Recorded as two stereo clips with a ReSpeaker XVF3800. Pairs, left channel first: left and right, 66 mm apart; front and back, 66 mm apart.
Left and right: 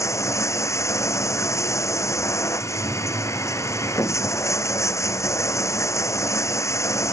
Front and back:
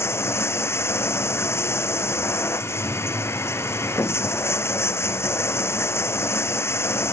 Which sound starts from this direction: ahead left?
Running water, at 0.0 s.